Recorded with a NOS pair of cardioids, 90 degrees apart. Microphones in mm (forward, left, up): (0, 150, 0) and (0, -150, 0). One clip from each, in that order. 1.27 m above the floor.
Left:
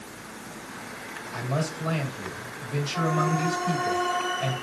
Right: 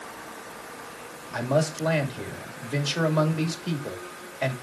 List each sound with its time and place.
1.3 s a man speaking: 65° right, 2.5 m